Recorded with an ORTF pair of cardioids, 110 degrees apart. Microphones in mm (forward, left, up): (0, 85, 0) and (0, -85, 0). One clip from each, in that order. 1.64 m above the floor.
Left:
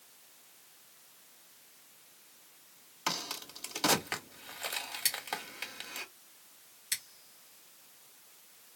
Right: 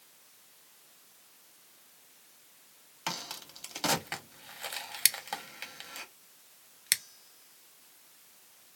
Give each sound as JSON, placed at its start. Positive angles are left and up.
{"t": 3.1, "sound": "a crack", "azimuth_deg": 5, "distance_m": 1.3}
{"t": 5.0, "sound": "scissors", "azimuth_deg": -50, "distance_m": 0.7}